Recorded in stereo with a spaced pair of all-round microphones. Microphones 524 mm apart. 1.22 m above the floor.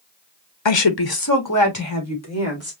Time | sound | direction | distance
0.7 | a woman speaking | 55° left (ahead or behind) | 0.7 m